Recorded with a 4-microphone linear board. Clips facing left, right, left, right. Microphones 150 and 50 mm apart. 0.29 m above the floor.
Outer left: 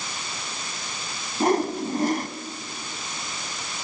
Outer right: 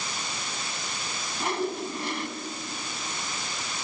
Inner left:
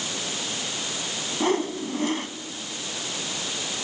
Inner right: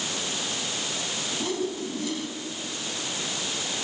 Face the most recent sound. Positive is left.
turn(degrees=45)  # may be behind; listen again after turning